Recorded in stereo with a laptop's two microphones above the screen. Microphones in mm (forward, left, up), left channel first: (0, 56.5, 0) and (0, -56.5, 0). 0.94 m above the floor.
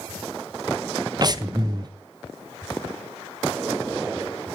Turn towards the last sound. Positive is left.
turn(degrees=-35)  # may be behind; listen again after turning